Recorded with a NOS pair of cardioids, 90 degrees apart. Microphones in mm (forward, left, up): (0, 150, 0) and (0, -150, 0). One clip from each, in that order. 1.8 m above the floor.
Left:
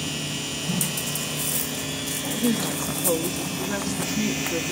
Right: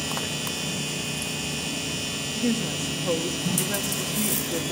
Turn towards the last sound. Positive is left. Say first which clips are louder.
# left 2 dB
turn(degrees=10)